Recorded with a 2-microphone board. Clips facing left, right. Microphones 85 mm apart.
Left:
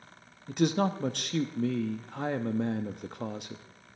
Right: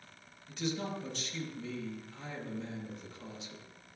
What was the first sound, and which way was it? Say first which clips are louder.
A man speaking: left 10 dB; 60° left (ahead or behind).